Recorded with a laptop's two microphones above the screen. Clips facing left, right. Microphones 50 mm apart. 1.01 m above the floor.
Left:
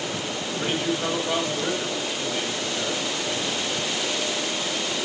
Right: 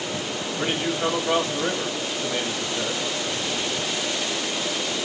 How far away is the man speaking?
About 1.6 m.